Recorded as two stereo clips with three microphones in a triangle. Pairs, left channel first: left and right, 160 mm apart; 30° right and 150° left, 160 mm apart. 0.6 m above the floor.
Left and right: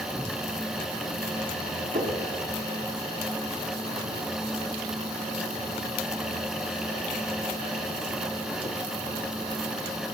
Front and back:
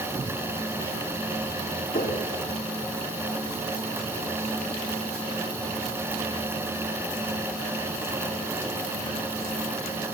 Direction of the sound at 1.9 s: 65° right.